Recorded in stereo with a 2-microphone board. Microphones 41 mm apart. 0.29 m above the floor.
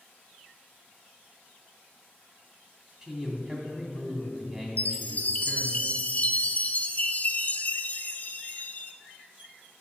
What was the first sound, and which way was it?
A man speaking, 20° right (ahead or behind).